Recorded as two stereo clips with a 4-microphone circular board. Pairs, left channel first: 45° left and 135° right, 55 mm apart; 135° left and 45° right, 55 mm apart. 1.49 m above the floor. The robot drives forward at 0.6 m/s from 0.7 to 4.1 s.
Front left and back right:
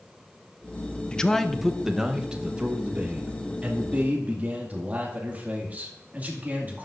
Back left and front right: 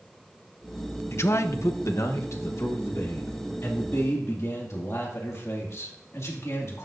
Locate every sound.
1.1 s a man speaking: 115° left, 0.6 m; by 6.8 s 165° left, 2 m